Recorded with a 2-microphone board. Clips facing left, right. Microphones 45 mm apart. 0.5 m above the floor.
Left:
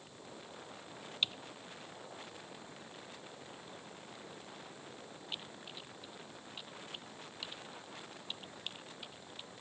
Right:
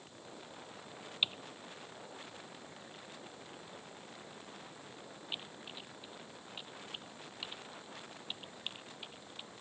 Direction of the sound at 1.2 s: 15° right (ahead or behind).